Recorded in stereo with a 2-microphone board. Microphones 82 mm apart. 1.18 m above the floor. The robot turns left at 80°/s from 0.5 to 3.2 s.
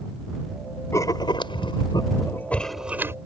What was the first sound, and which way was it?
Writing, 145° left.